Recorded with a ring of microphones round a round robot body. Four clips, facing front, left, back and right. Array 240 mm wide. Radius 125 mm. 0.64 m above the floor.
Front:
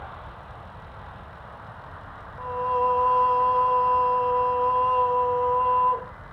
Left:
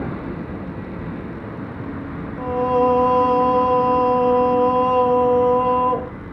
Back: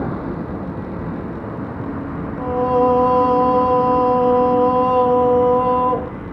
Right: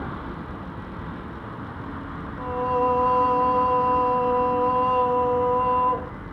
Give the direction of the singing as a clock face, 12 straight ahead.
7 o'clock.